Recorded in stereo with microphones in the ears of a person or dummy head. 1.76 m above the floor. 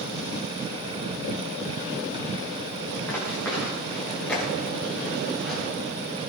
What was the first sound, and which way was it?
Running footsteps, 10° left (ahead or behind).